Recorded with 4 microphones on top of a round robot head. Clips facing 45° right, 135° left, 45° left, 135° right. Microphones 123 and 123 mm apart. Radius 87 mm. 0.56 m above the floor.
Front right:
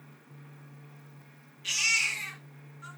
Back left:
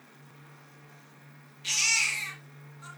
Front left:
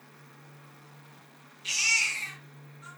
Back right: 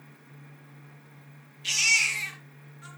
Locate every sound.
1.6 s a baby crying: 165° right, 4 m